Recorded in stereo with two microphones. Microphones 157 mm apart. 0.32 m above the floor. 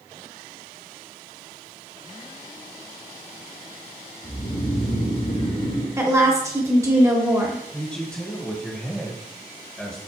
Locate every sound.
4.2 s snoring: 35° left (ahead or behind), 1.8 m
6.0 s a woman speaking: 20° right (ahead or behind), 0.9 m
7.7 s a man speaking: 5° left (ahead or behind), 0.9 m